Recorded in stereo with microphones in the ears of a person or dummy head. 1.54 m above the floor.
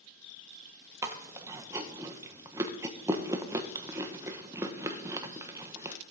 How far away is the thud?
I don't hear a thud.